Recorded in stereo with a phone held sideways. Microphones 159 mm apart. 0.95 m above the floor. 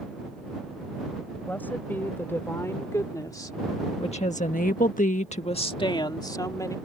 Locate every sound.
1.5 s a woman speaking: 10° left (ahead or behind); by 6.8 s 20° left (ahead or behind)